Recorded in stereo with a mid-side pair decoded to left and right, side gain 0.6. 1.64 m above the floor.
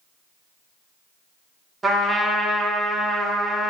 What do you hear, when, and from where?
1.8 s a trumpet: 25° right, 1.2 m